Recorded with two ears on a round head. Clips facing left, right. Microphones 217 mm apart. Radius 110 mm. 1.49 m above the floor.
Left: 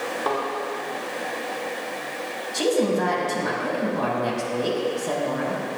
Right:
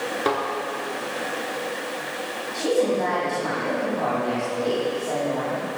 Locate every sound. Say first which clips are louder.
0.2 s a thud: right 2 dB; 30° right (ahead or behind), 4 m
2.5 s a woman speaking: even; 75° left (ahead or behind), 5.5 m